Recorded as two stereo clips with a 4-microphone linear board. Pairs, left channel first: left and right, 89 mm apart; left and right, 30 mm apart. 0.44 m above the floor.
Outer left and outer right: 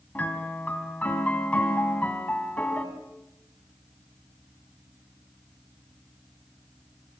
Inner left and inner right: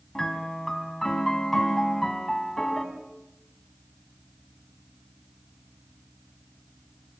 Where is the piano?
15° left (ahead or behind), 2 m.